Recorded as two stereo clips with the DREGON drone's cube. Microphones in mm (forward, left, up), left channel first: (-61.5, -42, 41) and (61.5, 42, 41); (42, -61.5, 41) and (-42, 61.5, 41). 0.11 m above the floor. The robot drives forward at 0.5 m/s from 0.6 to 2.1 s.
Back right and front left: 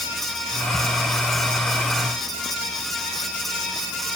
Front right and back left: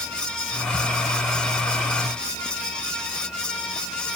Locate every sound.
Only background noise.